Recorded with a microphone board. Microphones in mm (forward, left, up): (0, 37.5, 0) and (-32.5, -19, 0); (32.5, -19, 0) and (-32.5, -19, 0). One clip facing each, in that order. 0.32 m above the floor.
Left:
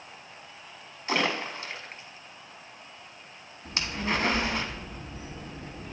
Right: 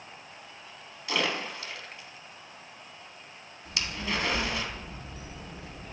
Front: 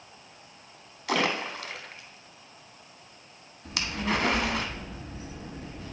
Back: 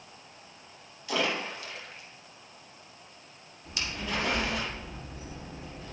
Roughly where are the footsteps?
No footsteps in this recording.